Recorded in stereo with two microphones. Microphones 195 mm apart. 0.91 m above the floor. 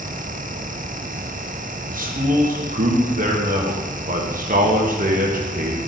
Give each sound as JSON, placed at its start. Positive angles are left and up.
{"t": 1.9, "sound": "a man speaking", "side_deg": -45, "distance_m": 1.0}